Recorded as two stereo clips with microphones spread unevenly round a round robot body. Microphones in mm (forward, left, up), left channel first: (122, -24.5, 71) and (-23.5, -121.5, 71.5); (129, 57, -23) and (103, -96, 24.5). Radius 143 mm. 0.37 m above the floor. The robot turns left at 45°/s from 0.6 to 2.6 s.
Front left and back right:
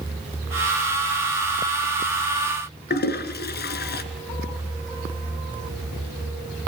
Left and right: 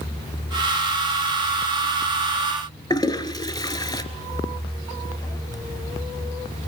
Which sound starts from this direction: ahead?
A toilet flushing, at 2.9 s.